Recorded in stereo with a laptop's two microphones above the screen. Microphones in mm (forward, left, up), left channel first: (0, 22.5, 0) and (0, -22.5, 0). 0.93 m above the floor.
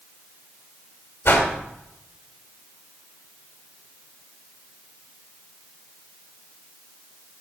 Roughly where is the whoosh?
Left.